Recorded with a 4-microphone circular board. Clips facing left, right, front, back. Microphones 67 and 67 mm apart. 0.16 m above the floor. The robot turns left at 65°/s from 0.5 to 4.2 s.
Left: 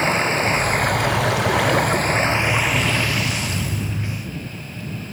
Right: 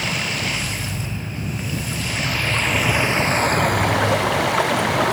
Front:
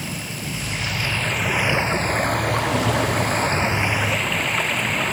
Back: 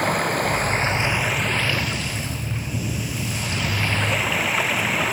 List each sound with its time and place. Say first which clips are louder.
0.0 s running water: left 6 dB, back 10 dB; 145° left; by 5.1 s 95° right